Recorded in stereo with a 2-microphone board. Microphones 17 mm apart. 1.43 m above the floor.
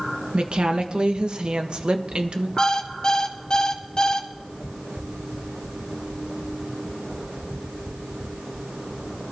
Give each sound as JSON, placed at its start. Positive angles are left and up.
{"t": 0.3, "sound": "a woman speaking", "side_deg": -85, "distance_m": 1.4}
{"t": 2.6, "sound": "an alarm clock", "side_deg": 50, "distance_m": 1.2}